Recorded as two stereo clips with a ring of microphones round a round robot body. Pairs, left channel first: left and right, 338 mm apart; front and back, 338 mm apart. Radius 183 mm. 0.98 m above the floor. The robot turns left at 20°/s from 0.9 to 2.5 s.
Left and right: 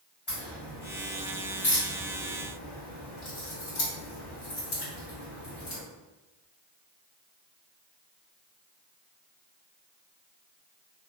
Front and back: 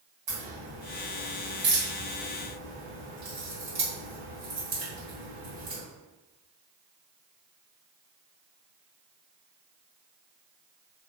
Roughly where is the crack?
Behind.